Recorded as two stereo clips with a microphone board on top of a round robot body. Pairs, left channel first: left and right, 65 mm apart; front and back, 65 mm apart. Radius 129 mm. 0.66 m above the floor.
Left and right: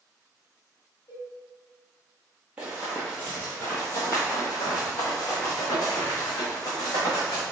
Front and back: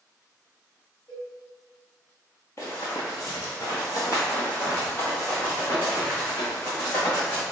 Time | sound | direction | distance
1.1 | a cowbell | 55° left | 1.6 m
2.6 | running footsteps | 30° right | 0.7 m